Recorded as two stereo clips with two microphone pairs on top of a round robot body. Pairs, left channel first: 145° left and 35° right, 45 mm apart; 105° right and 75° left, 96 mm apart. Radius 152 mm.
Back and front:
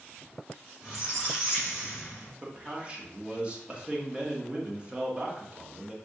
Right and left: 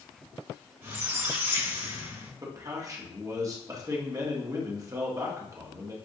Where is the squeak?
55° left, 1.6 m.